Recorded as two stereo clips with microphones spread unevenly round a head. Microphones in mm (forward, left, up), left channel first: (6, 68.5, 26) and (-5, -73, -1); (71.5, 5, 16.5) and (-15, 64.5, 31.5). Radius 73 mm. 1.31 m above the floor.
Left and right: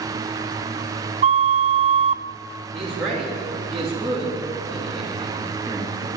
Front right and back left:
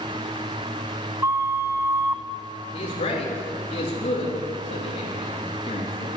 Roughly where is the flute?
Behind right.